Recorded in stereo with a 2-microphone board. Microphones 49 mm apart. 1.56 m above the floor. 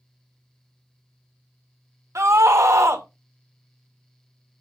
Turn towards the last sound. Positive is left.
turn(degrees=-75)  # may be behind; listen again after turning